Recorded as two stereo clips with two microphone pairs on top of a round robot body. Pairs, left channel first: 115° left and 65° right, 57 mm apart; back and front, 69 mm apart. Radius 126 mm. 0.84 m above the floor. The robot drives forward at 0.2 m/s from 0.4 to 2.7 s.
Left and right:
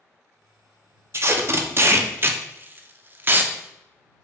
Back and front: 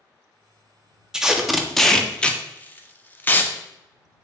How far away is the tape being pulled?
About 0.6 m.